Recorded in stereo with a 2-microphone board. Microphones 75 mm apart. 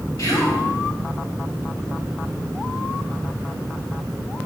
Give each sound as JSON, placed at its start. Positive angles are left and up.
{"t": 0.2, "sound": "whispering", "side_deg": 55, "distance_m": 3.0}